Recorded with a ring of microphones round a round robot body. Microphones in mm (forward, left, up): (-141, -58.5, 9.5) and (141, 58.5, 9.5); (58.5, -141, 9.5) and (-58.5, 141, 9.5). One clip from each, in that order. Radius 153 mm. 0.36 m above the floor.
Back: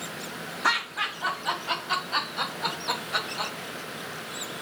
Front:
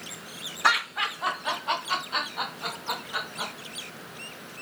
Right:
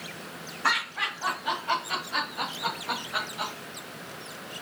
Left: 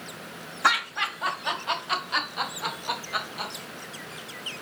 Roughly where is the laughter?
Left.